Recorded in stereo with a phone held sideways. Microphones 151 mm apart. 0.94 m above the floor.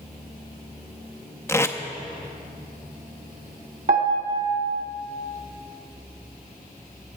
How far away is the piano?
About 1.7 m.